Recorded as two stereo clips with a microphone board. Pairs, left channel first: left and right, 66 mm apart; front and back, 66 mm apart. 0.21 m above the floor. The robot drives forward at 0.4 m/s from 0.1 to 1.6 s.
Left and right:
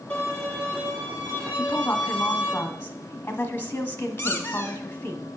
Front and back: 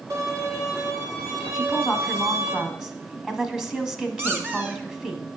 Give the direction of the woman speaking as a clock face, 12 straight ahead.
8 o'clock.